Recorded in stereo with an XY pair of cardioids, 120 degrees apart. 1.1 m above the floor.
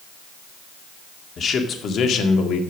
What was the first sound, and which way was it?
A man speaking, 40° left.